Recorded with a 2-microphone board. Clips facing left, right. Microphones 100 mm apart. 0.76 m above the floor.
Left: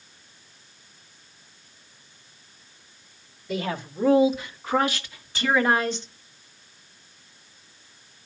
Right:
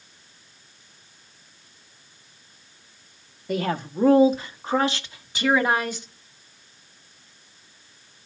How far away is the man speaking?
About 1.5 m.